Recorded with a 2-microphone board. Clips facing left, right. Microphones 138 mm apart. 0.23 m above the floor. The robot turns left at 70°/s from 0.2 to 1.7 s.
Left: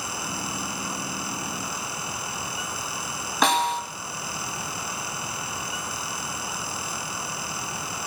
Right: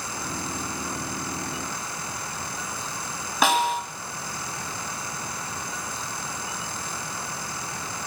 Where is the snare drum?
5° right (ahead or behind), 1.7 m.